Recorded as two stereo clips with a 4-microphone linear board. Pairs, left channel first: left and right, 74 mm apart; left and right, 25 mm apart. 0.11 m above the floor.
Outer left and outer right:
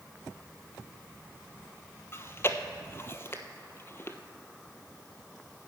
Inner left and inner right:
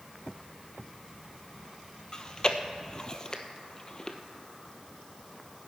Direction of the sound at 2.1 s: 35° left (ahead or behind).